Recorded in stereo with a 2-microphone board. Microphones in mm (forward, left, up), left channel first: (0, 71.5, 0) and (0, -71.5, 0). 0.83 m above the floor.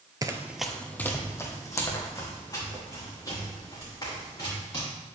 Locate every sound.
0.2 s running footsteps: 30° right (ahead or behind), 0.9 m; by 4.8 s 30° left (ahead or behind), 7.5 m